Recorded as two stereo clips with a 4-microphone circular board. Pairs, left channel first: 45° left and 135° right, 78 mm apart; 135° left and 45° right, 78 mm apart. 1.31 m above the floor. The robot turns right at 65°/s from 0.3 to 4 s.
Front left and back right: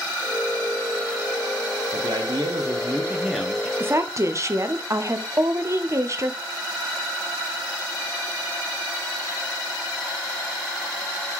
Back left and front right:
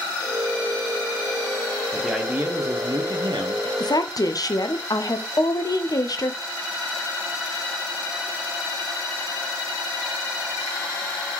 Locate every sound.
1.9 s a man speaking: 140° right, 0.8 m; by 3.7 s 25° right, 0.8 m
3.8 s a woman speaking: 160° left, 0.5 m; by 6.4 s 175° left, 0.5 m